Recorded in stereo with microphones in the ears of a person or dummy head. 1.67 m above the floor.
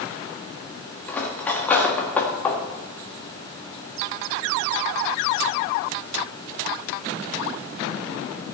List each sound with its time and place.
1.1 s cutlery clinking: 5° left (ahead or behind), 1.6 m